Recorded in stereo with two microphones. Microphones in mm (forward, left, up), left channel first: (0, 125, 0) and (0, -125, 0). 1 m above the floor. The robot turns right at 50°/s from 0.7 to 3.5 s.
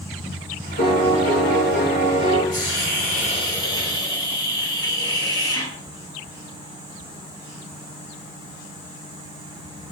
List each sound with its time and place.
0.8 s a piano: 70° left, 4.5 m; by 2.4 s 155° left, 4.5 m
2.5 s a hiss: 115° left, 4 m; by 5.7 s 165° left, 4 m